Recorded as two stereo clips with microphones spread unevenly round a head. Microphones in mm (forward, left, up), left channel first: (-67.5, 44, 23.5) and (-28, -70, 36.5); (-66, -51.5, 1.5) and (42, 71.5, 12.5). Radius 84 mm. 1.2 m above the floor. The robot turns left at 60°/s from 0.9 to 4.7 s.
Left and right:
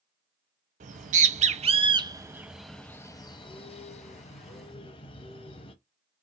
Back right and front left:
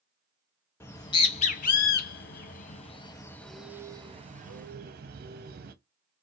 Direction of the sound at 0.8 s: 60° right.